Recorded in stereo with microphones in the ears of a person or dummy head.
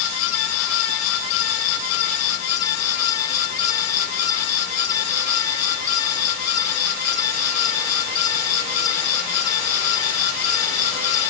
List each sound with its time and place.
Only background noise.